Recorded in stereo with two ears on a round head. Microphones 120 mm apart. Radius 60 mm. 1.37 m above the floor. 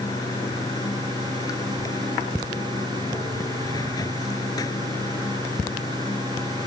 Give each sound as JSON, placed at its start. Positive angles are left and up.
{"t": 0.0, "sound": "running water", "side_deg": 30}